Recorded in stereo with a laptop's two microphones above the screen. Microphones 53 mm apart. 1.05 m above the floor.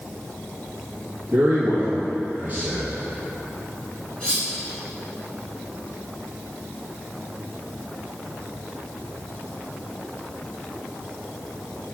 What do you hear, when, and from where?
1.3 s a man speaking: 30° right (ahead or behind), 1.3 m
4.2 s cutlery clinking: 20° left (ahead or behind), 2.0 m